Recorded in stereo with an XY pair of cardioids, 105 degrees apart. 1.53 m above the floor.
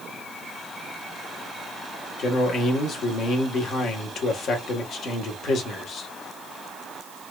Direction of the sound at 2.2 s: 65° left.